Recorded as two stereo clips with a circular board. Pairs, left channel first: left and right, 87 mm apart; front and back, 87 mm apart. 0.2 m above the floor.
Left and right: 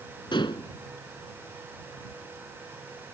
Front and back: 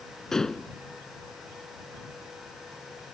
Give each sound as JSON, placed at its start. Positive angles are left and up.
{"t": 0.3, "sound": "dishes clattering", "azimuth_deg": 85}